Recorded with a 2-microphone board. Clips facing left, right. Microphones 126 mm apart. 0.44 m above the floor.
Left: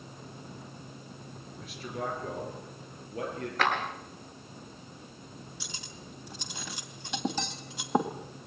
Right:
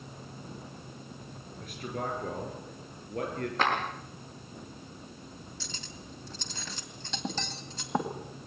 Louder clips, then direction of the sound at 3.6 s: Even; 25° right (ahead or behind).